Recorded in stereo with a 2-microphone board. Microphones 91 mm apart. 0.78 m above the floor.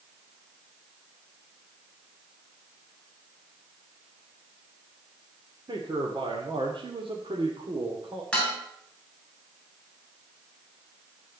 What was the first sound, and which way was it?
A man speaking, 55° right (ahead or behind).